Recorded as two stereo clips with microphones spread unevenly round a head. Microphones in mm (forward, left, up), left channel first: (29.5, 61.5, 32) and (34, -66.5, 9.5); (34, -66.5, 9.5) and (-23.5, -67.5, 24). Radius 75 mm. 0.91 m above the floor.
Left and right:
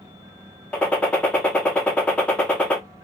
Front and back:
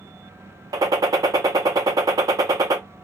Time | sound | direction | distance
0.7 | a gunshot | 170° left | 0.6 m